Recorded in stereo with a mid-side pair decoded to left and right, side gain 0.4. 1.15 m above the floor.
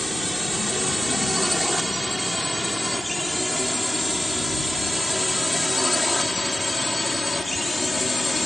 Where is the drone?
5° right; by 8.5 s 25° left.